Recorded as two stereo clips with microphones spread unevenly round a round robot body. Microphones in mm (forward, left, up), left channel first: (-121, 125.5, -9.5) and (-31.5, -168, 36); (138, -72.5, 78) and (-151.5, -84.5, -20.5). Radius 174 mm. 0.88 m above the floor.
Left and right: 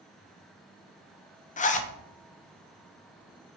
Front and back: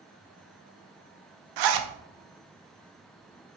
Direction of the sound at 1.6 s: 175° left.